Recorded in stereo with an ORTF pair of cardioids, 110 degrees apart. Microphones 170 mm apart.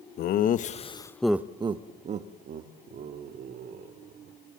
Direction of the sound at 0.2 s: 65° left.